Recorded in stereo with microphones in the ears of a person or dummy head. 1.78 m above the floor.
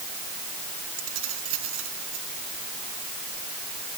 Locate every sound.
1.0 s keys jangling: 80° right